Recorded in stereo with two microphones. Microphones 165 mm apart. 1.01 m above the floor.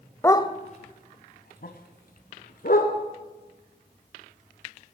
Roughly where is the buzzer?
No buzzer in this recording.